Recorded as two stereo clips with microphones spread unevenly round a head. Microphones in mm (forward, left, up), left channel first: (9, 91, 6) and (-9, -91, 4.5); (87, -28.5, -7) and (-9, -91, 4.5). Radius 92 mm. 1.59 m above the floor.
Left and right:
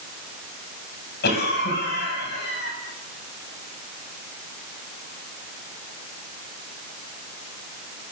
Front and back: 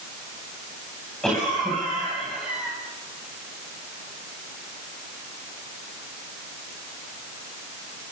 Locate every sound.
1.2 s a cough: 120° left, 10 m